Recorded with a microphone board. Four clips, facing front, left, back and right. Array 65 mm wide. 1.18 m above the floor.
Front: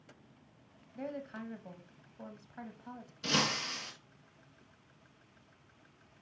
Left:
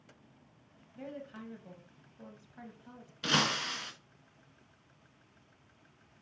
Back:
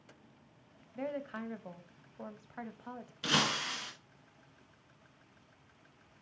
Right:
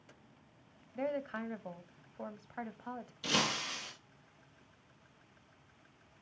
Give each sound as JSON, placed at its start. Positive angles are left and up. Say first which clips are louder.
{"t": 0.9, "sound": "a woman speaking", "louder": "right 8 dB, back 3 dB", "azimuth_deg": -115, "distance_m": 1.0}
{"t": 3.2, "sound": "breaking glass", "louder": "left 4 dB, back 1 dB", "azimuth_deg": 115, "distance_m": 2.0}